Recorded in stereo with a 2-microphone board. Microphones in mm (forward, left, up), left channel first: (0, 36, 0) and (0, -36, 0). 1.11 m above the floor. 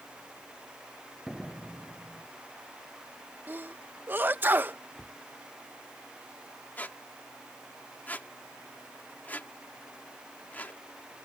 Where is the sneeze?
30° right (ahead or behind).